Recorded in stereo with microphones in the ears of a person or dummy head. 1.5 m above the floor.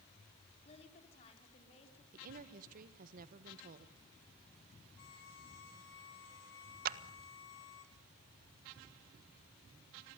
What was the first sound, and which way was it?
A woman speaking, 40° left (ahead or behind).